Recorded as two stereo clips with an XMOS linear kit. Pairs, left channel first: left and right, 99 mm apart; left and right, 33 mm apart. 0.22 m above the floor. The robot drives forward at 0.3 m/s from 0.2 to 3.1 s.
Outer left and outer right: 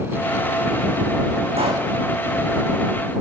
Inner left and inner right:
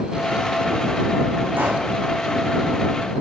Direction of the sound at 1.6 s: 85° right.